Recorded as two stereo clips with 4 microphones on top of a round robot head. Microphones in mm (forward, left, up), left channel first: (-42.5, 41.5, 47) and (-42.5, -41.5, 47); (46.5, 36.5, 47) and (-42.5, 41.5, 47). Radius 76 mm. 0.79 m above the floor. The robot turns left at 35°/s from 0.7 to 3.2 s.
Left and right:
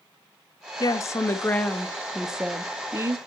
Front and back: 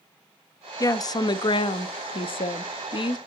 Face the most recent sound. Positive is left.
turn(degrees=-35)